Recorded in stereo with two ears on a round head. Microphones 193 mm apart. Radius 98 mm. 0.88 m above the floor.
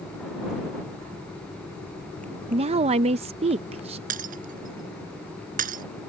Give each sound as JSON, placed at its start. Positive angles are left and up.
{"t": 2.5, "sound": "a woman speaking", "side_deg": -30}
{"t": 4.1, "sound": "breaking glass", "side_deg": -40}